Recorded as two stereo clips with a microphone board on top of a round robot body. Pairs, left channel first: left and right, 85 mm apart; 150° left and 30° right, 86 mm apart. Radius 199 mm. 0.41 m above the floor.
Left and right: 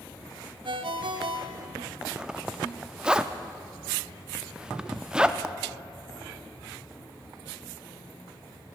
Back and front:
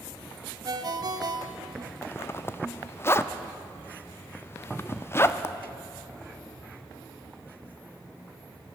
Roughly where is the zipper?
Behind.